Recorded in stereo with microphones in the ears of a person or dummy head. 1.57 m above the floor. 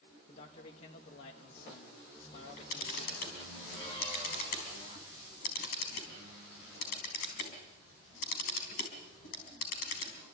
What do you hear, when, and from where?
0.3 s a man speaking: 40° left (ahead or behind), 1.2 m
2.3 s a camera shutter: 50° left (ahead or behind), 4 m